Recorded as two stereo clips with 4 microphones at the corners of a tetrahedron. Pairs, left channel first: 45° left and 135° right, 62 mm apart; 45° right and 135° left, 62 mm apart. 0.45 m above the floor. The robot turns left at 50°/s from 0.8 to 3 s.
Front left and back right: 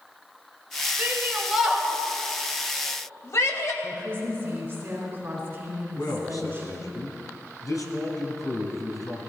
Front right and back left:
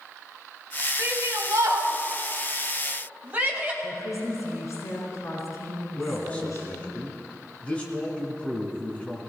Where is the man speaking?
25° left, 3.5 m.